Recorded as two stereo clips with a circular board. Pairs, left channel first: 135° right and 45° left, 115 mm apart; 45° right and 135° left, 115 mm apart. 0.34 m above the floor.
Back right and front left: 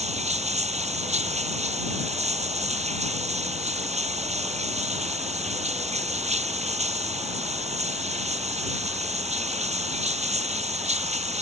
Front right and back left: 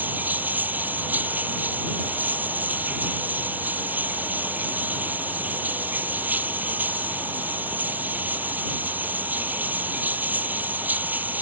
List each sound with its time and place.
0.0 s running water: 60° left